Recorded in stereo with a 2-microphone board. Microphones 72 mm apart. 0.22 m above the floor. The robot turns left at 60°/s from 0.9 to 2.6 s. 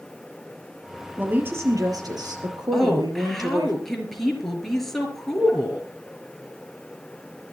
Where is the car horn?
No car horn in this recording.